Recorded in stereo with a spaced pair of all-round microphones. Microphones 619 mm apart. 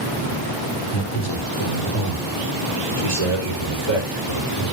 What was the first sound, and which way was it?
A man speaking, 40° left (ahead or behind).